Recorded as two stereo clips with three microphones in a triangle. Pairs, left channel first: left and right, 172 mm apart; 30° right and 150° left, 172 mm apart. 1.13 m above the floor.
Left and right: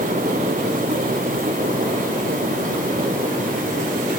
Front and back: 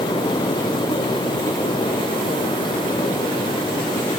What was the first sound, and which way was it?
Only background noise.